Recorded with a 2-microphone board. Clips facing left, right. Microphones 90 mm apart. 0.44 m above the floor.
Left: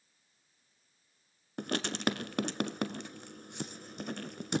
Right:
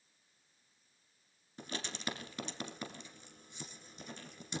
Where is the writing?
75° left (ahead or behind), 1.0 m.